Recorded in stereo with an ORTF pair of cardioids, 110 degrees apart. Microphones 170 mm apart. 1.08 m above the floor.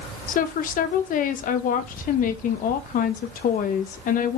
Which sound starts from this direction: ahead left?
A woman speaking, at 0.3 s.